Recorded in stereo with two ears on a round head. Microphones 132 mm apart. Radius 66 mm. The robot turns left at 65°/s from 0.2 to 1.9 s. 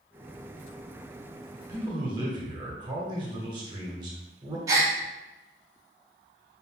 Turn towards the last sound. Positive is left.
turn(degrees=-25)  # may be behind; listen again after turning